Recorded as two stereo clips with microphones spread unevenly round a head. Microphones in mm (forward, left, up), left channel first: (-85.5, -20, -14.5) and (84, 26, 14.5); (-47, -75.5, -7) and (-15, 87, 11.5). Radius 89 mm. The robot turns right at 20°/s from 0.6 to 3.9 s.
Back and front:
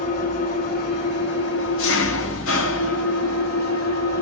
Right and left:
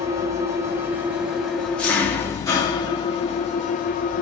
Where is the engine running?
150° left, 1.5 m; by 4.2 s 145° right, 1.5 m.